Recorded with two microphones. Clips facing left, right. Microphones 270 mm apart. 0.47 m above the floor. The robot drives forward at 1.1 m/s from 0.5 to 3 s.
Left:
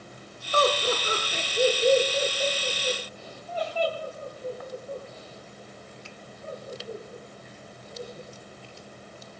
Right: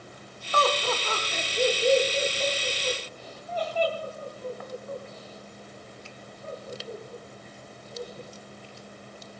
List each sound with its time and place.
0.5 s laughter: 30° left (ahead or behind), 1.1 m; by 8.3 s 10° left (ahead or behind), 3 m